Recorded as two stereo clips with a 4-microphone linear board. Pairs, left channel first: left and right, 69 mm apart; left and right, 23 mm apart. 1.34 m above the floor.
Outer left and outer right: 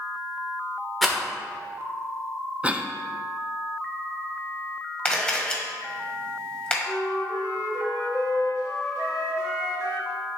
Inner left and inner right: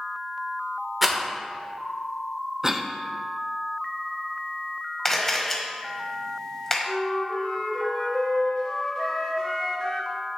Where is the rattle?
Centre (ahead or behind), 1.1 m.